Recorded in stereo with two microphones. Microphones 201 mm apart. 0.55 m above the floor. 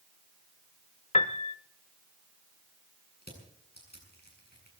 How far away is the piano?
About 0.7 m.